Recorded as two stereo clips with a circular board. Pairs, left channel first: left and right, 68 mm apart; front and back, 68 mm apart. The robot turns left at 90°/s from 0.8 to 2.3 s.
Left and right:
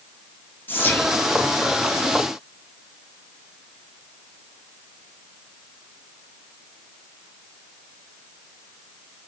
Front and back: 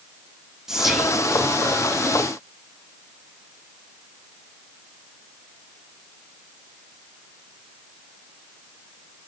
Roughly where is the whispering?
Left.